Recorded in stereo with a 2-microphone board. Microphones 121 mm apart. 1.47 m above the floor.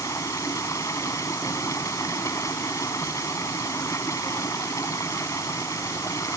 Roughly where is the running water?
Left.